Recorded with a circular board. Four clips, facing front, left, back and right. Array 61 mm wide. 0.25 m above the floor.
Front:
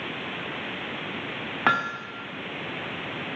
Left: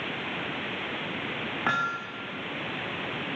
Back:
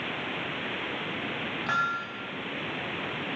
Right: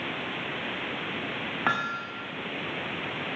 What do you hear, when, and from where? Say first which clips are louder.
1.7 s hammering: left 1 dB, front 4 dB; 5° right, 6 m